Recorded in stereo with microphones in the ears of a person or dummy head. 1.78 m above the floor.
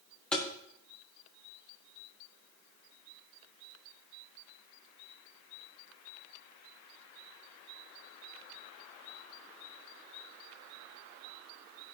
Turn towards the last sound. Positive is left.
turn(degrees=5)  # may be behind; listen again after turning